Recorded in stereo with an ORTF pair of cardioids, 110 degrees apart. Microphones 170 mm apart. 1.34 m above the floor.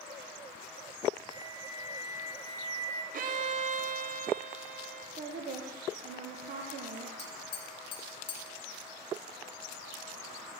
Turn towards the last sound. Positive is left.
turn(degrees=30)